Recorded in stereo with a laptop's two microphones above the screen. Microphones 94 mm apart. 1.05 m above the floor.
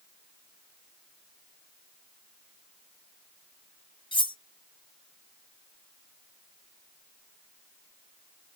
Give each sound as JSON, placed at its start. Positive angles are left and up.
{"t": 4.1, "sound": "cutlery clinking", "side_deg": 60, "distance_m": 0.5}